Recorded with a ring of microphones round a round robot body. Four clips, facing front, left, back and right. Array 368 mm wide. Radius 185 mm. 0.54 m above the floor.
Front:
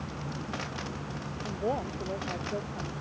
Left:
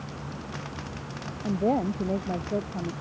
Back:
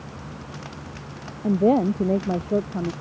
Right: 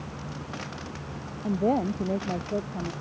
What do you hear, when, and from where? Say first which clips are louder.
1.4 s a woman speaking: even, back 14 dB; straight behind